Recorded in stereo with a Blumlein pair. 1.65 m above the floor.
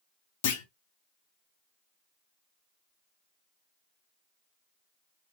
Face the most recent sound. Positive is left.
turn(degrees=55)